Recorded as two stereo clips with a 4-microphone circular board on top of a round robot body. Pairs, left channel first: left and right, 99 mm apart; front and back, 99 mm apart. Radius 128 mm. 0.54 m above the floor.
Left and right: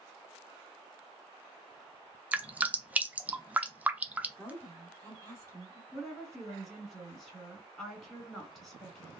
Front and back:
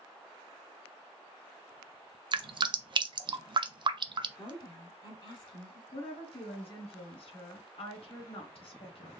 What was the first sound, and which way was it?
Dripping, 160° right.